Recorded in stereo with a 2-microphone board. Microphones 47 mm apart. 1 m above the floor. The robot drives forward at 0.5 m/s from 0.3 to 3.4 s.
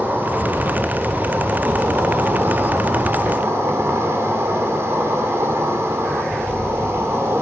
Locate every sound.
0.0 s an insect: 50° right (ahead or behind), 3 m; by 7.4 s 85° right, 2.5 m